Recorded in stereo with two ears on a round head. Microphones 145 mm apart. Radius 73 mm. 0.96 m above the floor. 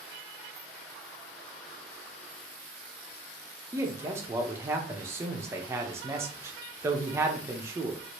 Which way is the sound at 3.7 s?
15° right (ahead or behind).